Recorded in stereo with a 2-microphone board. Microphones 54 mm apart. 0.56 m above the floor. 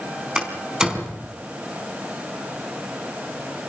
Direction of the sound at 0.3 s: 15° right (ahead or behind).